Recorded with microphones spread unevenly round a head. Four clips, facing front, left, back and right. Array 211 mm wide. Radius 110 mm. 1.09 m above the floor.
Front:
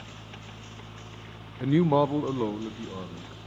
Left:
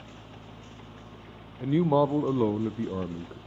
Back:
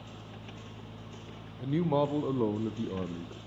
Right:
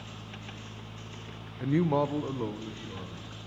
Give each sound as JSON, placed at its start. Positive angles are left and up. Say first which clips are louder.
{"t": 1.6, "sound": "a man speaking", "louder": "left 3 dB, front 6 dB", "azimuth_deg": 0, "distance_m": 0.7}